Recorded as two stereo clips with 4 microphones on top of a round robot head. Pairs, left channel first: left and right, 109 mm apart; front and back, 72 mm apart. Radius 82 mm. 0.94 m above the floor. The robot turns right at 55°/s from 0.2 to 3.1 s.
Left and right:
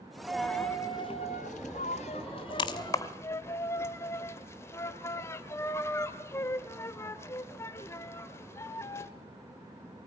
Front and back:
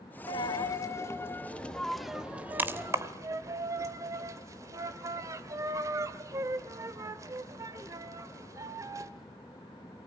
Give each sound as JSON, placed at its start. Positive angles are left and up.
{"t": 0.3, "sound": "a dropped coin", "azimuth_deg": -5, "distance_m": 0.9}